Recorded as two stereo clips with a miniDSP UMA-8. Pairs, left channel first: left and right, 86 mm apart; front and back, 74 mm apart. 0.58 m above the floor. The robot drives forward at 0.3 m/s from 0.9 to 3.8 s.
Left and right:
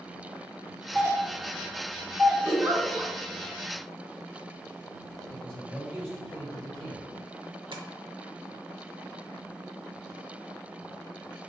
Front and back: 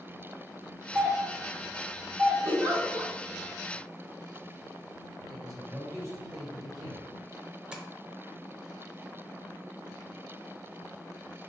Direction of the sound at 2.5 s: 145° right.